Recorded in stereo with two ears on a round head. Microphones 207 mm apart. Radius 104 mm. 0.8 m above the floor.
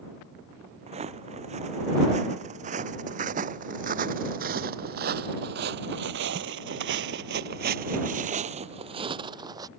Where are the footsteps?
30° right (ahead or behind); by 9.7 s 15° right (ahead or behind).